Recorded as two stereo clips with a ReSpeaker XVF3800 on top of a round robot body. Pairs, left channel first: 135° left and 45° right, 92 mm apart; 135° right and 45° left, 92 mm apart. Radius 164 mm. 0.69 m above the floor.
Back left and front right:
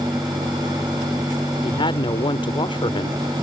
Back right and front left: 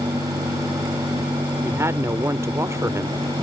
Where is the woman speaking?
105° left.